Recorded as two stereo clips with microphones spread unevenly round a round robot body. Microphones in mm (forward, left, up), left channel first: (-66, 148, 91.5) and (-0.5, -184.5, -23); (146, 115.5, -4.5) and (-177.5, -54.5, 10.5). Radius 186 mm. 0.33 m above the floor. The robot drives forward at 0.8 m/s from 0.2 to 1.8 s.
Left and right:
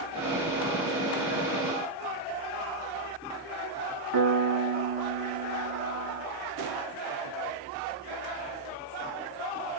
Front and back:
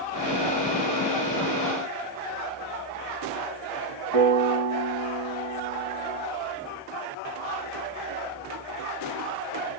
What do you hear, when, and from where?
4.1 s a piano: 120° right, 5 m